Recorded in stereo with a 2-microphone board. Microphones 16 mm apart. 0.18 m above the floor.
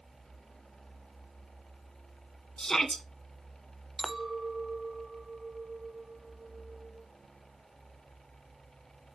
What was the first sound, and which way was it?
A shout, 40° left (ahead or behind).